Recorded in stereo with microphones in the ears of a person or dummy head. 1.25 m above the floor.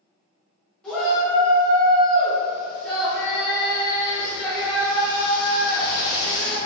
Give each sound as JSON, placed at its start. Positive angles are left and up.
{"t": 0.8, "sound": "a shout", "side_deg": 0, "distance_m": 0.9}